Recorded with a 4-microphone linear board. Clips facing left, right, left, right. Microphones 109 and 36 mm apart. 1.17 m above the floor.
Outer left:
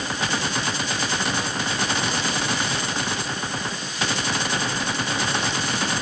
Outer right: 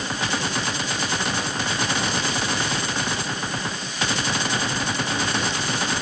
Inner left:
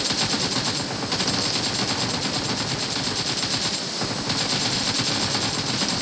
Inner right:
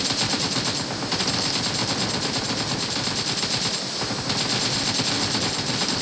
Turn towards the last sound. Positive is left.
No sound to turn to.